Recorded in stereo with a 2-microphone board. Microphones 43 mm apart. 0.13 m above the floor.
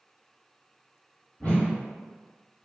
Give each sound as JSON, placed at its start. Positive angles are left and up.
{"t": 1.4, "sound": "a whoosh", "side_deg": 35, "distance_m": 1.2}